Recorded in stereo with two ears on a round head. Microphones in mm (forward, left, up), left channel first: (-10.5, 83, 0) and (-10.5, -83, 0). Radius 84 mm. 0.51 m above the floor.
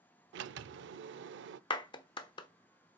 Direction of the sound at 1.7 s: 25° left (ahead or behind).